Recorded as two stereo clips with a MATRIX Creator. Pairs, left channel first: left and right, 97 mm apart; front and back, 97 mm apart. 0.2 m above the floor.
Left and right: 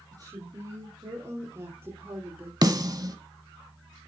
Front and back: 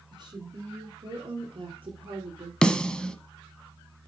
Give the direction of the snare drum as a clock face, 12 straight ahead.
3 o'clock.